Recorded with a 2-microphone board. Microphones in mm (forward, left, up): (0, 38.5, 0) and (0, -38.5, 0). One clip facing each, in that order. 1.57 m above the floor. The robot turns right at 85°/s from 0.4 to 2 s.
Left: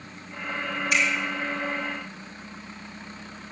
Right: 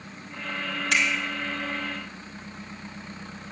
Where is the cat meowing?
I don't hear a cat meowing.